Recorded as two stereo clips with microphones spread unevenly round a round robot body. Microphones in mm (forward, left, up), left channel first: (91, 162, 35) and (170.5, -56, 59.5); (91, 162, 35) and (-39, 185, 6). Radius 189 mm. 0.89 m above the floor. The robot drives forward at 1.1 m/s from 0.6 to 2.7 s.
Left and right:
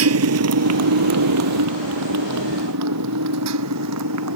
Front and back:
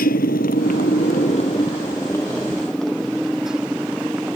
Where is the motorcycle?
55° right; by 4.4 s 105° right.